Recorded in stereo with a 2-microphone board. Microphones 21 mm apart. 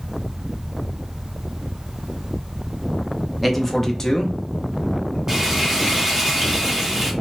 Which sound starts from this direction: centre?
A man speaking, at 3.4 s.